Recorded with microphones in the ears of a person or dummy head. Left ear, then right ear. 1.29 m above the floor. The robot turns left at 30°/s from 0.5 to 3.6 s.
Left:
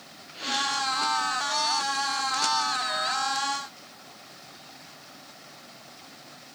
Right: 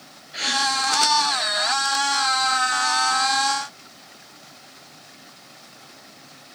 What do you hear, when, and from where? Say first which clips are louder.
0.3 s a gasp: right 6 dB; 55° right (ahead or behind), 6.5 m; by 0.6 s 50° right (ahead or behind), 6.5 m